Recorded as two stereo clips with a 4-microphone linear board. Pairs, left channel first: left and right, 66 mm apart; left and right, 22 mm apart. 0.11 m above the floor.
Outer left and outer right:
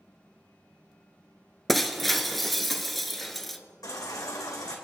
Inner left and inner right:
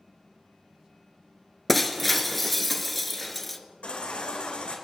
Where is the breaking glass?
Centre (ahead or behind), 0.8 m.